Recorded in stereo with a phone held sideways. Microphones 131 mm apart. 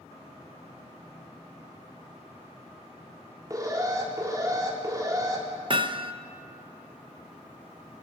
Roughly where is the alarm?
Right.